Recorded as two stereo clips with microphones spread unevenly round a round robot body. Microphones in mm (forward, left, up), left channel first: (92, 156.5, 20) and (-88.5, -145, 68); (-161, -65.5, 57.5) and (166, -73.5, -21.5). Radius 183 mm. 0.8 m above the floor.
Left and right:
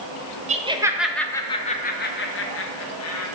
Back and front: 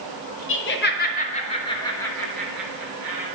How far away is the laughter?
About 1.0 m.